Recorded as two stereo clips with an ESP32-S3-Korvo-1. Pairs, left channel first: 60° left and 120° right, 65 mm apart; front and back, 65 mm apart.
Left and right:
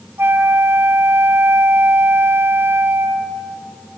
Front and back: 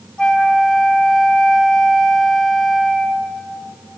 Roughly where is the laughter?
I don't hear laughter.